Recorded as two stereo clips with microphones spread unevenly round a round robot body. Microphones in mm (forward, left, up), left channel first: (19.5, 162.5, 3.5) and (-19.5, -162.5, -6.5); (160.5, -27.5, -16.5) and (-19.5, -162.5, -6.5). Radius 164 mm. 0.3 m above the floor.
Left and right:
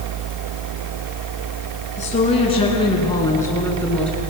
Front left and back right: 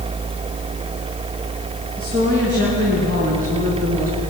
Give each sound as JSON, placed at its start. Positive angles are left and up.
{"t": 2.0, "sound": "a woman speaking", "azimuth_deg": 150, "distance_m": 4.5}